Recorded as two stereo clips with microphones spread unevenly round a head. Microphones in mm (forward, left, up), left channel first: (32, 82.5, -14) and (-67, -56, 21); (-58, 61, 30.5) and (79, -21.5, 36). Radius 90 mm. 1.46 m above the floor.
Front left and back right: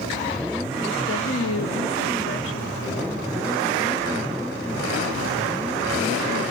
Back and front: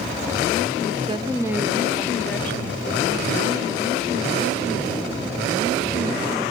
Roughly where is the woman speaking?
Ahead left.